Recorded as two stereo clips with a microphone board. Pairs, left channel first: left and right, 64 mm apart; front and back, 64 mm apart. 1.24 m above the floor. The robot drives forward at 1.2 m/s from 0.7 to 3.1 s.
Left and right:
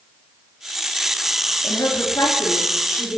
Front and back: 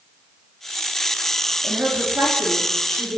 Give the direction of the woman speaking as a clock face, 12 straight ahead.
8 o'clock.